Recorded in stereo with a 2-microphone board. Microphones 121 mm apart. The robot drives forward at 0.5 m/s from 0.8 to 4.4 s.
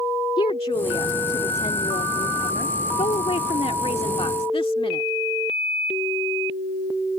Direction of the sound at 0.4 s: 50° left (ahead or behind).